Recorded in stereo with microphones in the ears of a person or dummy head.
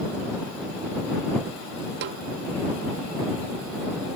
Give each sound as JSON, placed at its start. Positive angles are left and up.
{"t": 2.0, "sound": "a snare drum", "side_deg": -60}